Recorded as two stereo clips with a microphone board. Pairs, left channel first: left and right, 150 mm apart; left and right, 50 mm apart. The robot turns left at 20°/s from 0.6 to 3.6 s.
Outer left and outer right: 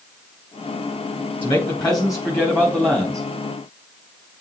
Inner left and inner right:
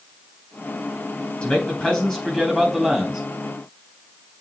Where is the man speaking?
35° left, 3.5 m; by 3.2 s straight ahead, 3.5 m.